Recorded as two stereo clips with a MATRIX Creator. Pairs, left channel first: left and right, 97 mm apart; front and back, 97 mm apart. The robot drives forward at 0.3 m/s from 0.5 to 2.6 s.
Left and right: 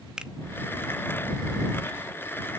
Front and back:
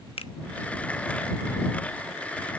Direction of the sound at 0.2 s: 5° right.